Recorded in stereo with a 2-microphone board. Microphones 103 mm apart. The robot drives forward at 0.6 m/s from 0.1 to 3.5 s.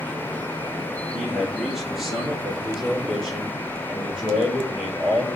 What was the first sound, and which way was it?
A man speaking, 5° right (ahead or behind).